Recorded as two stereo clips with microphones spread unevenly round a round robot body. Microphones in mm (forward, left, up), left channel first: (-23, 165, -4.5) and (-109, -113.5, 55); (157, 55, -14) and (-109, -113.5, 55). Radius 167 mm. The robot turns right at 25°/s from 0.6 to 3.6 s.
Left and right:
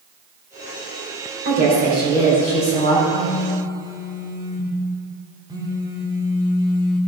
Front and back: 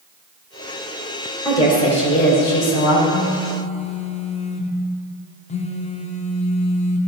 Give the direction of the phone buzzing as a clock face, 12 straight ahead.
1 o'clock.